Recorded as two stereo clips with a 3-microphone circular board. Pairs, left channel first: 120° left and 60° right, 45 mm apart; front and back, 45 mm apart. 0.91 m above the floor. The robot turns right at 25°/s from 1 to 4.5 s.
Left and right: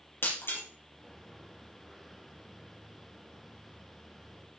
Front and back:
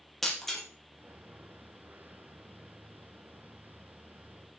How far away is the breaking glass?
About 5 m.